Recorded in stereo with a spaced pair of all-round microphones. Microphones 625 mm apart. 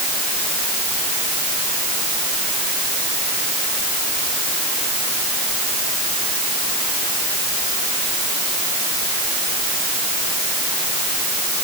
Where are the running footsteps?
I don't hear running footsteps.